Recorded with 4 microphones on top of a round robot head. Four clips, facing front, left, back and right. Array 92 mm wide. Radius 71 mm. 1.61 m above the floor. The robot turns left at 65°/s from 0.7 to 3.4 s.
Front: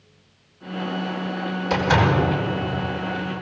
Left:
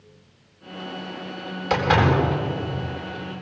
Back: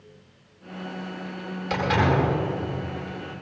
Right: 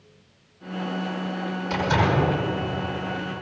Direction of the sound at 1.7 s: 80° left.